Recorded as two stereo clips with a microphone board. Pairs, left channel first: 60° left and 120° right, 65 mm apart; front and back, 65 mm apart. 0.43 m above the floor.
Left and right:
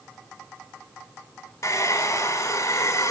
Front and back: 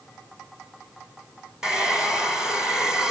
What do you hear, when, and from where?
1.6 s a hair dryer: 100° left, 3.5 m